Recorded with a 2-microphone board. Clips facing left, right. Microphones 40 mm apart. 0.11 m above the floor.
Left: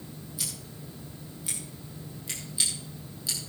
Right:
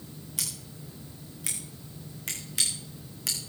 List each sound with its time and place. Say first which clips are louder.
0.4 s scissors: right 1 dB; 75° right (ahead or behind), 7.5 m